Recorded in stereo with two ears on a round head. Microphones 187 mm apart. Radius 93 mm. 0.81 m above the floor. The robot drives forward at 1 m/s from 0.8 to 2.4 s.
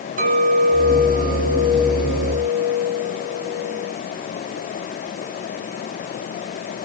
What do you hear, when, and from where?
0.2 s a clink: 40° right (ahead or behind), 5.5 m; by 3.9 s 30° right (ahead or behind), 7 m